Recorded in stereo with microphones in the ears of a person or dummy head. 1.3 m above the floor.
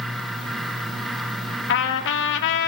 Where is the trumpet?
75° left (ahead or behind), 1.8 m.